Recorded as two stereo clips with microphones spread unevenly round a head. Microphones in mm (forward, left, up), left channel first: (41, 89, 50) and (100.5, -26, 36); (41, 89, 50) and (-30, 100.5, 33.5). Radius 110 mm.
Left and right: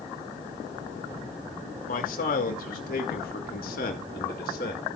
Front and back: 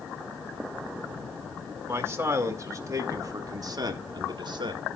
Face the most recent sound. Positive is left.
turn(degrees=160)